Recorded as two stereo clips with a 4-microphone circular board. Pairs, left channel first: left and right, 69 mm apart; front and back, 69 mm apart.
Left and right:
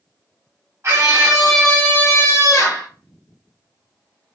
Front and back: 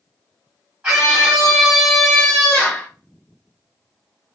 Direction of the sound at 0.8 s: 120° right.